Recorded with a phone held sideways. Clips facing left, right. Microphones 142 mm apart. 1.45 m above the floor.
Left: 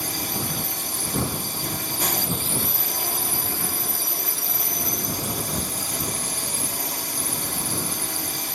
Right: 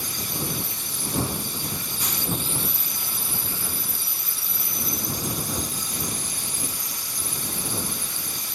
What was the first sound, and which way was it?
A drone, 65° left (ahead or behind).